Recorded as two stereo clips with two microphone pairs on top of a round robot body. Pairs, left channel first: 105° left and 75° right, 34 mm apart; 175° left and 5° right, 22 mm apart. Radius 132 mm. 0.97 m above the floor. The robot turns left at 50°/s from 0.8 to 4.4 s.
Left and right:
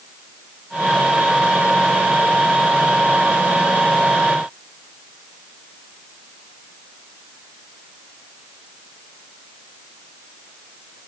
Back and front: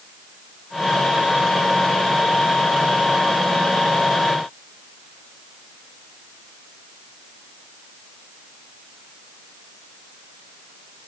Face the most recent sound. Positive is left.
No sound to turn to.